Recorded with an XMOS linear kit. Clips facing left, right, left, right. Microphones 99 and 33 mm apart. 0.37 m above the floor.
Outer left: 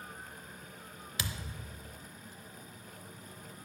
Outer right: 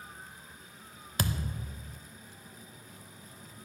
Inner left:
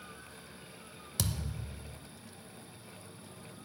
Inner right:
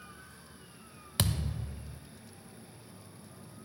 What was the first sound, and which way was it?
A thud, 45° right (ahead or behind).